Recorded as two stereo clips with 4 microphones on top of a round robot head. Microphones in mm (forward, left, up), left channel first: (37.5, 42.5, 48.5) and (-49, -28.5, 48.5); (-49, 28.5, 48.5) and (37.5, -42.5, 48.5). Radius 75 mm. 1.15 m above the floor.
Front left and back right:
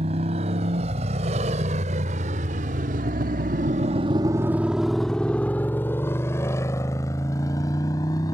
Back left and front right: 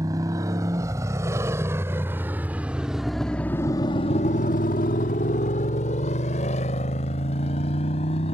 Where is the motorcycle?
100° right; by 8.3 s 100° left.